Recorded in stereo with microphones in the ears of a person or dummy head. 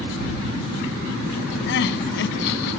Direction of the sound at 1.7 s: 70° left (ahead or behind).